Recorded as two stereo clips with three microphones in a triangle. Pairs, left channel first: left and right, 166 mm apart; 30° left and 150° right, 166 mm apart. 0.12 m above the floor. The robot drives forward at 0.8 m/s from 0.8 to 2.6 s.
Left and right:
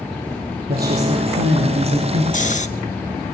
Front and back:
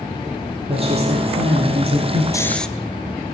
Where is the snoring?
90° left, 0.7 m; by 2.7 s 115° left, 0.7 m.